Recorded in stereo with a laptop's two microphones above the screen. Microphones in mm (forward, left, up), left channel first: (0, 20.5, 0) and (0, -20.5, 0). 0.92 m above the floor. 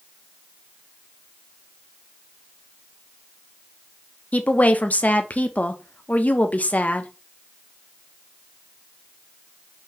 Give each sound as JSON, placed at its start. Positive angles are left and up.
{"t": 4.3, "sound": "a woman speaking", "side_deg": 40, "distance_m": 0.5}